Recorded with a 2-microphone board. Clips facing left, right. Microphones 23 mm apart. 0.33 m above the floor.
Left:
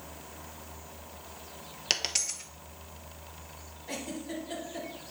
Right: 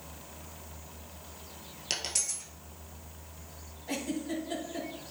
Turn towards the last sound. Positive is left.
turn(degrees=10)  # may be behind; listen again after turning